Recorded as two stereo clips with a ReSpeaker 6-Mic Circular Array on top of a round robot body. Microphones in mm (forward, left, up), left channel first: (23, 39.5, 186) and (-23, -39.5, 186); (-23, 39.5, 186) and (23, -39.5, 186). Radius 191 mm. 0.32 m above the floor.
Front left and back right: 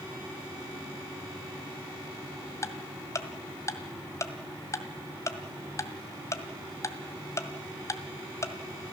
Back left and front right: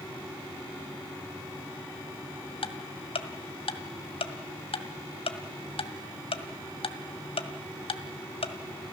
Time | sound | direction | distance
2.6 | ticking | 120° left | 1.7 m